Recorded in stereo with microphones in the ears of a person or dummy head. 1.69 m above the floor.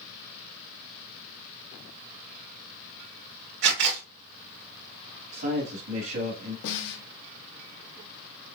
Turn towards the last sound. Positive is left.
turn(degrees=65)  # may be behind; listen again after turning